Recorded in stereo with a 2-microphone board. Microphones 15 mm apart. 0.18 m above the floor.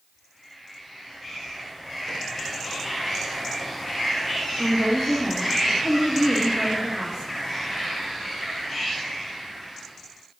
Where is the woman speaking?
45° right (ahead or behind), 2 m.